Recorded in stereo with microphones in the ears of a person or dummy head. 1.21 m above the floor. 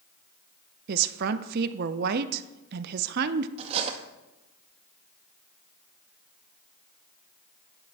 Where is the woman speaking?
55° right (ahead or behind), 0.6 m.